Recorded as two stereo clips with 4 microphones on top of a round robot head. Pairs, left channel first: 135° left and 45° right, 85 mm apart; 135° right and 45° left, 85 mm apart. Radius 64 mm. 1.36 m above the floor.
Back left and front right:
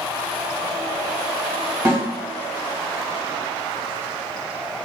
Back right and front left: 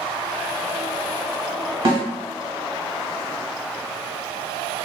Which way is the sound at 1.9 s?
15° left.